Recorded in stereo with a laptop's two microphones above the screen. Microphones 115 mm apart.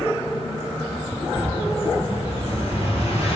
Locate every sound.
1.3 s an explosion: 65° left (ahead or behind), 1.5 m